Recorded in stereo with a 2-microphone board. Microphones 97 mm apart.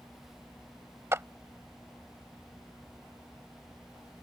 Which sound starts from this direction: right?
A clap, at 1.1 s.